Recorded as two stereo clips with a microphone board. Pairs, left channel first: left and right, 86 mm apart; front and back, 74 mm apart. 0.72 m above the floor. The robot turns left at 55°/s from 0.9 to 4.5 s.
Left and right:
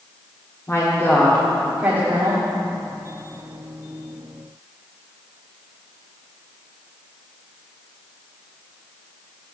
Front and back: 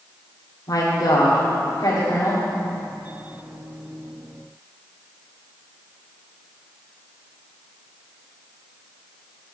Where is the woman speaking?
35° left, 1.6 m; by 2.4 s 50° right, 1.6 m.